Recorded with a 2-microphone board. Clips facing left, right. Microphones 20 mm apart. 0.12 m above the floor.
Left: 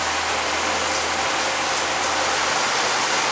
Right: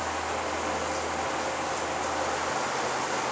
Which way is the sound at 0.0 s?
75° left (ahead or behind).